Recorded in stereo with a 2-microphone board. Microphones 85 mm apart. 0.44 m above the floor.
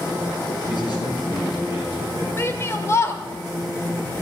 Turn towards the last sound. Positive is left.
turn(degrees=30)  # may be behind; listen again after turning